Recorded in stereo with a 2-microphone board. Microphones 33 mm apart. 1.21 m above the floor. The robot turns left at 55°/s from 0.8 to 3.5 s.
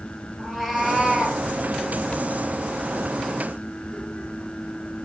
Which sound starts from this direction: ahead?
A cat meowing, at 0.4 s.